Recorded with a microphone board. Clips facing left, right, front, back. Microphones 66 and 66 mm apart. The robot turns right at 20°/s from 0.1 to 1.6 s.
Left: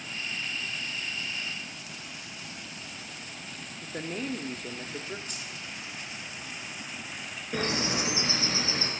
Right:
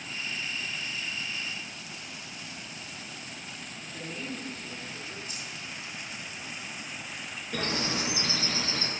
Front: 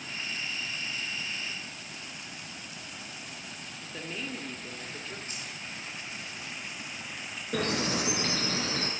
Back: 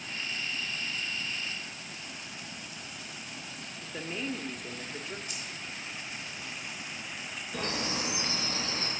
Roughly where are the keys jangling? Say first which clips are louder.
Even, even; ahead left.